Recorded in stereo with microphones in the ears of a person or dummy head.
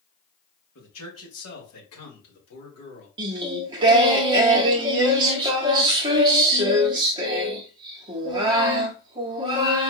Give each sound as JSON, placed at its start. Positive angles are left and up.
{"t": 0.8, "sound": "a man speaking", "side_deg": 75, "distance_m": 2.0}
{"t": 3.2, "sound": "singing", "side_deg": -25, "distance_m": 0.9}